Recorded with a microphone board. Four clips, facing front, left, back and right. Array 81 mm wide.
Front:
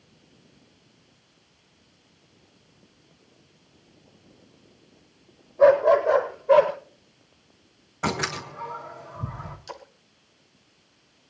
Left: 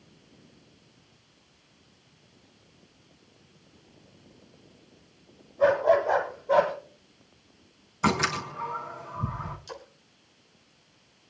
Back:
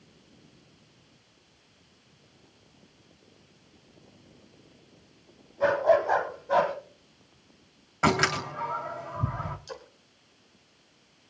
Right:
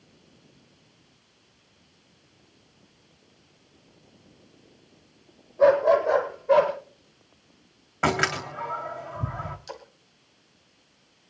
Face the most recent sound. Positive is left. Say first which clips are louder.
# right 2 dB, front 2 dB
turn(degrees=-45)